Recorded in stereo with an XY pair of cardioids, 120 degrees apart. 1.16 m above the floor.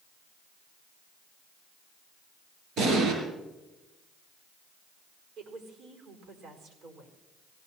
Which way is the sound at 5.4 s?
70° right.